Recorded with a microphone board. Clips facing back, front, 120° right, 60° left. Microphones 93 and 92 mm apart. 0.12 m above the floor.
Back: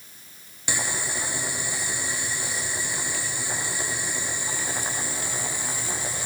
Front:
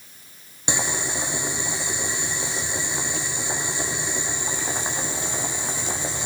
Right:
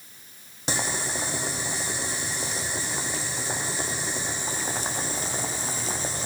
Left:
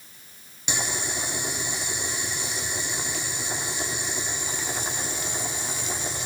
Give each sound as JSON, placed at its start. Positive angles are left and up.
{"t": 0.7, "sound": "boiling", "azimuth_deg": -65, "distance_m": 6.0}